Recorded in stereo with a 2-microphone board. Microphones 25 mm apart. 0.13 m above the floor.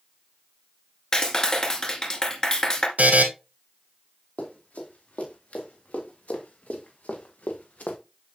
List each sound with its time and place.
1.1 s a clap: 30° left (ahead or behind), 1.5 m
3.0 s a buzzer: 80° right, 1.4 m
4.4 s running footsteps: 75° left (ahead or behind), 3.5 m; by 8.0 s 80° left, 1.5 m